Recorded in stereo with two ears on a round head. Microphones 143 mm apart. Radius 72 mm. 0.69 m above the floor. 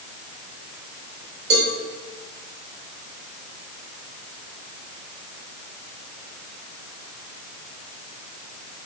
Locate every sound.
1.5 s a cowbell: 65° right (ahead or behind), 2.5 m